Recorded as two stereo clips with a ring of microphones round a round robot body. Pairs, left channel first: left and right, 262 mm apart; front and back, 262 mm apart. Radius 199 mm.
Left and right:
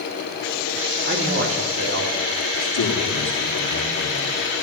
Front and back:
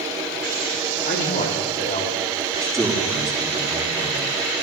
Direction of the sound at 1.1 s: 45° right.